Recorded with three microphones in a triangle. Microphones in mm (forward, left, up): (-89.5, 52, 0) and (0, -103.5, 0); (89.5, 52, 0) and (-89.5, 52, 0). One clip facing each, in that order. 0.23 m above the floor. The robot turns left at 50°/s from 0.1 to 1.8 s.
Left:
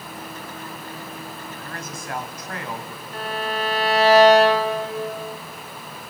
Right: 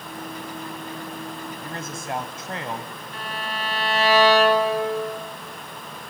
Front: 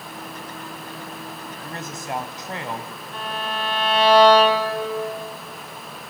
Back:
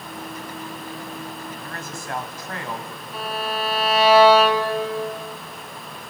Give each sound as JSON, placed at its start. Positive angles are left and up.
{"t": 1.6, "sound": "a man speaking", "azimuth_deg": -35, "distance_m": 1.5}
{"t": 3.1, "sound": "a violin", "azimuth_deg": 100, "distance_m": 2.0}